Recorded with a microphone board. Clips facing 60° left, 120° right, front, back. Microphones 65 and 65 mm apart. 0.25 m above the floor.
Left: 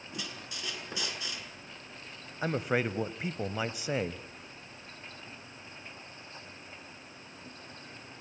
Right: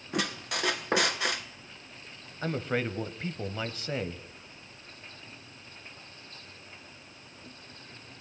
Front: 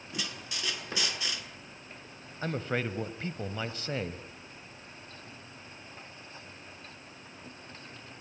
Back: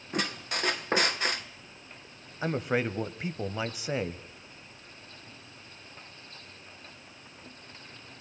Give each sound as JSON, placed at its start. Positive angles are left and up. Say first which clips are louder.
{"t": 0.1, "sound": "a squeak", "louder": "right 11 dB, back 8 dB", "azimuth_deg": -140, "distance_m": 1.6}
{"t": 2.4, "sound": "a man speaking", "louder": "left 1 dB, back 4 dB", "azimuth_deg": 125, "distance_m": 1.0}